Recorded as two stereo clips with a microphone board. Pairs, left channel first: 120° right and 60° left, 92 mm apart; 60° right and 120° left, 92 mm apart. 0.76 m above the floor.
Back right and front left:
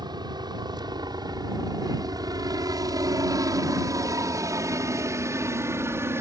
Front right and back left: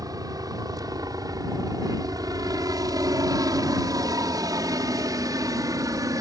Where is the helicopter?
85° left; by 6.2 s 105° left.